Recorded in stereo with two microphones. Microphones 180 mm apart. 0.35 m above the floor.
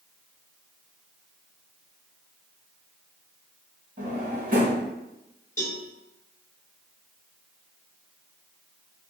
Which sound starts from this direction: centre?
A cowbell, at 5.6 s.